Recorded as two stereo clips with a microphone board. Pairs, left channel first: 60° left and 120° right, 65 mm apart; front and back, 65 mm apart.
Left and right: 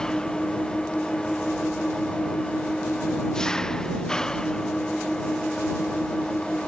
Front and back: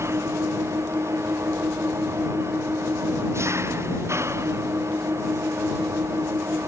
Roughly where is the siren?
No siren in this recording.